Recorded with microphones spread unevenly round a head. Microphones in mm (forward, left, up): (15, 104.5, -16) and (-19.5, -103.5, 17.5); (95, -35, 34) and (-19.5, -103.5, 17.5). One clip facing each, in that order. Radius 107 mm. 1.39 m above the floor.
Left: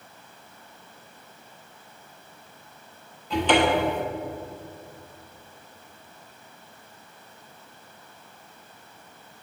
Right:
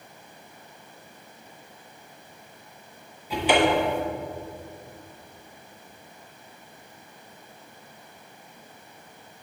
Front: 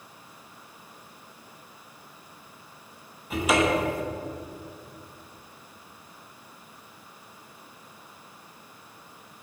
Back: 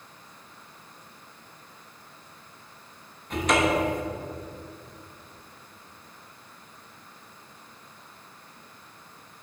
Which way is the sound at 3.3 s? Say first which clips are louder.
Even, even; 40° right.